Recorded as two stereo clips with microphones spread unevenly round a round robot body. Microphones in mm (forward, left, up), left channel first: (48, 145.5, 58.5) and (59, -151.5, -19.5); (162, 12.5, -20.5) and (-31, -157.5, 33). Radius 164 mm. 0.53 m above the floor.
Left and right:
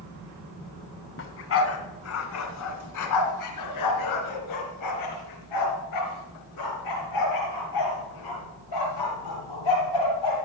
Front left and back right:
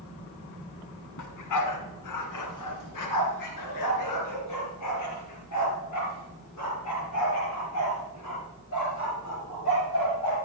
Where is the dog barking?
40° left, 1.9 m; by 10.3 s 90° left, 6.5 m.